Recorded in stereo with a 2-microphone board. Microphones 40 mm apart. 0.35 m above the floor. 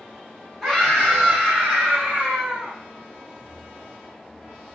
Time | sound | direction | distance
0.6 | a scream | centre (ahead or behind) | 1.9 m